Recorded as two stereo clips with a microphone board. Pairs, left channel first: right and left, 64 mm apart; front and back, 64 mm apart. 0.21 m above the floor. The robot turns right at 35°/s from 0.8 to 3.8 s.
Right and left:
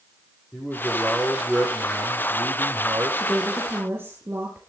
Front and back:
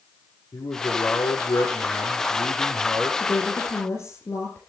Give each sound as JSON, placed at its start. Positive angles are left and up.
{"t": 0.5, "sound": "a man speaking", "azimuth_deg": -20, "distance_m": 9.0}
{"t": 3.2, "sound": "a woman speaking", "azimuth_deg": 20, "distance_m": 4.0}